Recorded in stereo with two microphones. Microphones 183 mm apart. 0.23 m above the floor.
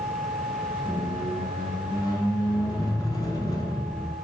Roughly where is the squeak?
Left.